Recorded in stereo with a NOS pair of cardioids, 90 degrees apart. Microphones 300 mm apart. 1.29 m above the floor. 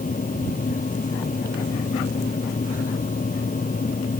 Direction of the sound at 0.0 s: 25° left.